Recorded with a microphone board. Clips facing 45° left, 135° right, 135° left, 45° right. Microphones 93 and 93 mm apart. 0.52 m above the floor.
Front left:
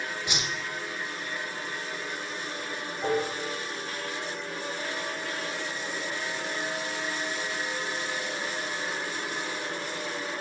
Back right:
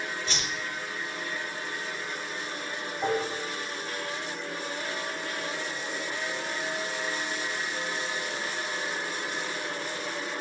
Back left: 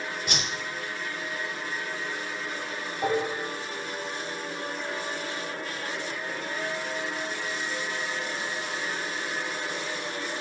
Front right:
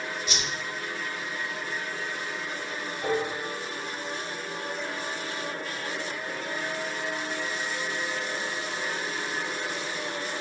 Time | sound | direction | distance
0.3 | a whoosh | 120° left | 0.8 m
3.0 | dishes clattering | 170° left | 2 m